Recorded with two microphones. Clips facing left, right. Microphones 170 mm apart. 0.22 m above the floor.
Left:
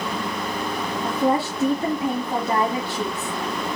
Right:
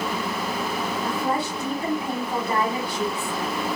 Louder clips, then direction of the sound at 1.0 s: Left 7 dB; 25° left (ahead or behind).